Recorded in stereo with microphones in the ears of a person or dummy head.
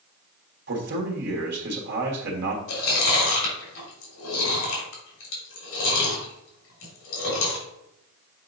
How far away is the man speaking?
About 1.7 m.